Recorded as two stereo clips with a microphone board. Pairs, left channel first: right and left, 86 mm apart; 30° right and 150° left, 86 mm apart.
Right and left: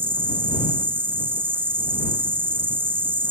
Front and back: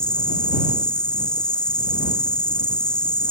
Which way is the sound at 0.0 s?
40° left.